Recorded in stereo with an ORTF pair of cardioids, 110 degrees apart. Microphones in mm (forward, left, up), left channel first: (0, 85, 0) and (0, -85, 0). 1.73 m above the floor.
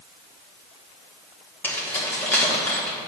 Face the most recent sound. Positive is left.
turn(degrees=10)